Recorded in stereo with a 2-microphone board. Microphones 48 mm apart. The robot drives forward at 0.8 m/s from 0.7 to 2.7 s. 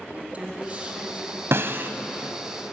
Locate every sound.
0.1 s a woman speaking: 30° right (ahead or behind), 3.5 m; by 1.4 s 35° right (ahead or behind), 3 m
1.5 s a snare drum: 65° right (ahead or behind), 1.0 m; by 1.9 s 50° right (ahead or behind), 1.1 m